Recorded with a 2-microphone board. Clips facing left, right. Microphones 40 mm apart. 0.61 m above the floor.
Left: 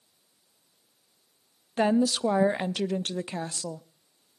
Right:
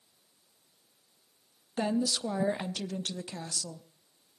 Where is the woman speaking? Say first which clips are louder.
Left 7 dB; 35° left (ahead or behind), 0.6 m.